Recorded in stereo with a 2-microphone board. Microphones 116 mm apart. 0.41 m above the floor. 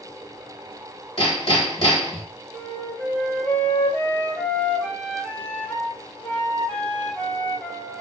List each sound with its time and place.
1.2 s hammering: 55° left (ahead or behind), 1.3 m
2.5 s a flute: 10° left (ahead or behind), 0.8 m